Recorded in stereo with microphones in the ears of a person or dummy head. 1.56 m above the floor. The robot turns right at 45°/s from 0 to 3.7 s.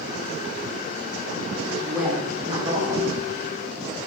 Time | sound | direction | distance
1.8 | a woman speaking | 175° left | 2.5 m